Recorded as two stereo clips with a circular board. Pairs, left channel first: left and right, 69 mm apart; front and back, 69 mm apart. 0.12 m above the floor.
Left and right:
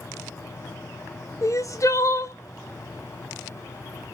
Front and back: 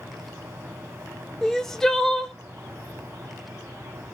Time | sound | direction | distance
1.4 | crying | 80° left | 0.5 m